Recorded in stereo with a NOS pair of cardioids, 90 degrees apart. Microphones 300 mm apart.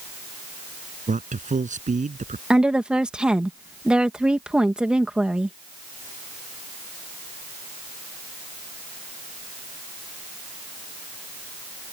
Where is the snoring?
I don't hear snoring.